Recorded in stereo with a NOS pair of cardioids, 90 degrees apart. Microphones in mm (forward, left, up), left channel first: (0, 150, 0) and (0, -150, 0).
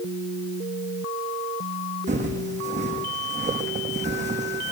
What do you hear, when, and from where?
2.1 s footsteps: 25° right, 5 m